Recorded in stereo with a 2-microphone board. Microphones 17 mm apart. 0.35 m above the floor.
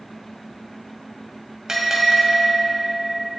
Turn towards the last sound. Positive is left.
turn(degrees=-40)  # may be behind; listen again after turning